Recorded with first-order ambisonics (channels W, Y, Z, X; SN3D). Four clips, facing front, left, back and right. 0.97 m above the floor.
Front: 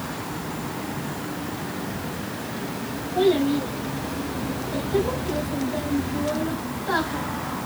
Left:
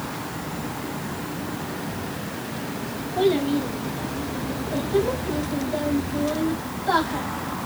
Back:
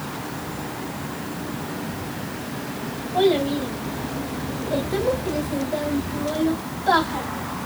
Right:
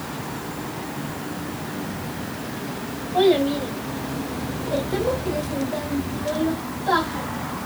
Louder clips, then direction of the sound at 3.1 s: Right 3 dB, back 1 dB; 115° right.